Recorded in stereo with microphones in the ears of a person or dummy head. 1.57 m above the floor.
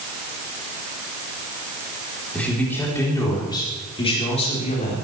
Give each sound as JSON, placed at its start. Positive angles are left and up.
{"t": 2.3, "sound": "a man speaking", "side_deg": 5, "distance_m": 5.0}